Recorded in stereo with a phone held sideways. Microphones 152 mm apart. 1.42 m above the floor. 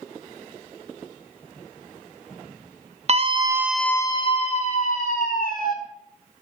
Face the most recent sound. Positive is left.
turn(degrees=65)  # may be behind; listen again after turning